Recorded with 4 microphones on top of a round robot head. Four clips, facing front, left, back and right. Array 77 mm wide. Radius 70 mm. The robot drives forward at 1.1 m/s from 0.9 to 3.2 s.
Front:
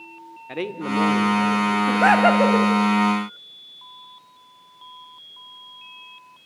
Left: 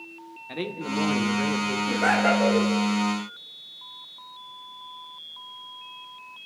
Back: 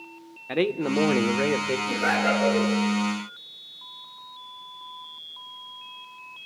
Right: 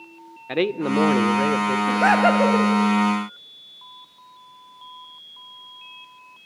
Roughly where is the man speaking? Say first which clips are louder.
Right 9 dB, back 2 dB; behind right.